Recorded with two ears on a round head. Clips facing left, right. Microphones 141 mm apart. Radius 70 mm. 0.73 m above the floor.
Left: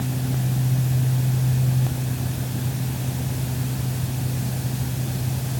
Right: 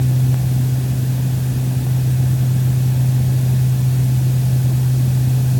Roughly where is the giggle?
No giggle in this recording.